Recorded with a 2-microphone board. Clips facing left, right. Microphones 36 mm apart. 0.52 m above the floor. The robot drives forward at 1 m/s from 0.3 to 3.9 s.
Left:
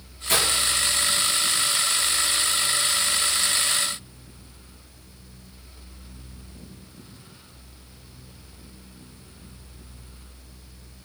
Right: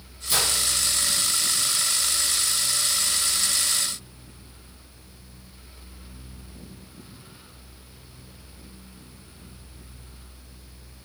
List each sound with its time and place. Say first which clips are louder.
0.3 s breaking glass: left 3 dB; 65° left (ahead or behind), 7 m